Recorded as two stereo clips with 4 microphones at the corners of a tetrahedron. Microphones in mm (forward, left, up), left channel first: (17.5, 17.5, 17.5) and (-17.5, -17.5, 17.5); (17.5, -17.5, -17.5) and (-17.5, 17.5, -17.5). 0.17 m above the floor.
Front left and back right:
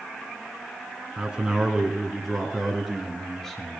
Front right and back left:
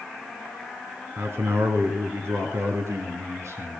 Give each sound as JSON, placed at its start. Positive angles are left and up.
{"t": 1.2, "sound": "a man speaking", "azimuth_deg": 155, "distance_m": 2.0}